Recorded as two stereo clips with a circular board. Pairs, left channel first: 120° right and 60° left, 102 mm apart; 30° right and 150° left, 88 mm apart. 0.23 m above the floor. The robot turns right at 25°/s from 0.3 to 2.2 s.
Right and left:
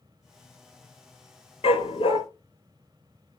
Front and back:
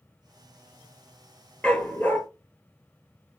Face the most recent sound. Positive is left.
turn(degrees=-95)